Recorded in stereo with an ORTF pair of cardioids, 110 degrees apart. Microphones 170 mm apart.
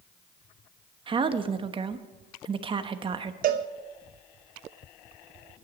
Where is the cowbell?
60° right, 0.9 m.